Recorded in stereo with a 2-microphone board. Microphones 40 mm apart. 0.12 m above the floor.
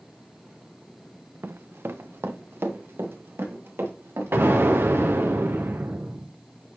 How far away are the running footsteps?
About 0.6 m.